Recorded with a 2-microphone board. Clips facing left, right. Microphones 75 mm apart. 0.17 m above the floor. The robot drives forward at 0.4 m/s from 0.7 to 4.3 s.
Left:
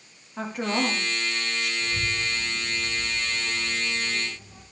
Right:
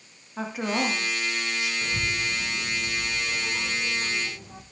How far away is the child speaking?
About 5 m.